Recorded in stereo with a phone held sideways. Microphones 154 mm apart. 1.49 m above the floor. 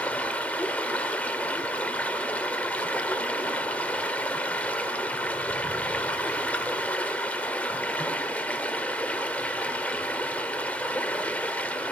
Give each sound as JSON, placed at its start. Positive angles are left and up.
{"t": 0.0, "sound": "running water", "side_deg": 10, "distance_m": 1.5}